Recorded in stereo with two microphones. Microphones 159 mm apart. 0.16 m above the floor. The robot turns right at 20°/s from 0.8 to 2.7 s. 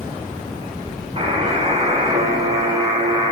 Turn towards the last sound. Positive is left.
turn(degrees=-55)